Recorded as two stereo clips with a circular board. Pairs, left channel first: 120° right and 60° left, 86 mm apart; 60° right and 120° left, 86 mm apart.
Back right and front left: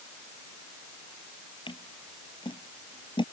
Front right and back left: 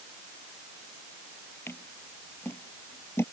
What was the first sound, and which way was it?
Scissors, 120° right.